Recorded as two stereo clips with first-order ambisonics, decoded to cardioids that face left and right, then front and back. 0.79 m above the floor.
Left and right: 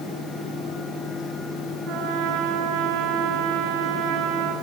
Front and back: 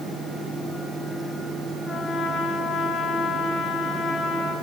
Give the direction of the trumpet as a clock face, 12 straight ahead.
2 o'clock.